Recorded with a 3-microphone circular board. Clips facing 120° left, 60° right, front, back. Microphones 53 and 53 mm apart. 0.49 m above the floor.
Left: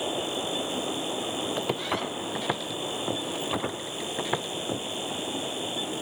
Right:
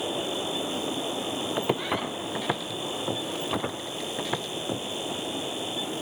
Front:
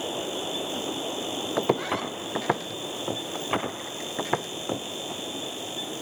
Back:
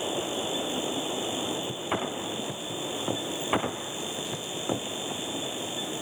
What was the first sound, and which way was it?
Footsteps, 15° left.